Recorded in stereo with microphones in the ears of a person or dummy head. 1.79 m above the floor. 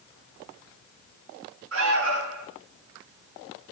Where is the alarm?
80° right, 6.5 m.